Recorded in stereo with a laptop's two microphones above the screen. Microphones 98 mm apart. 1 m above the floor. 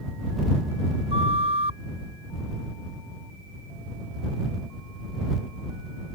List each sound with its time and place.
1.1 s a flute: 85° right